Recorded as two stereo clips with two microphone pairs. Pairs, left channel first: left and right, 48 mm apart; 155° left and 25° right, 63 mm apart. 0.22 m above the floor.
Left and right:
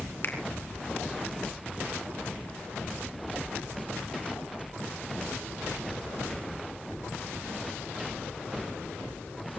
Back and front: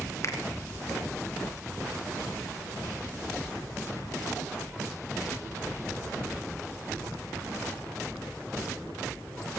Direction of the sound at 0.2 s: 120° left.